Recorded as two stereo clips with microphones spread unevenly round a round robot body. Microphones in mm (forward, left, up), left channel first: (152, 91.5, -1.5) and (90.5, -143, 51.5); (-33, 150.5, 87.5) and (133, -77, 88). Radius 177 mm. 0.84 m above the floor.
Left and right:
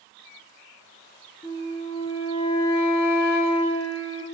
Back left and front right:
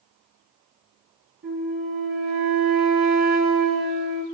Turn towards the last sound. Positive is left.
turn(degrees=-10)